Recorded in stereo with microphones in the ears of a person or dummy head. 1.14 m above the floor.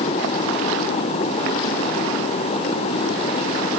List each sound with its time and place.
Only background noise.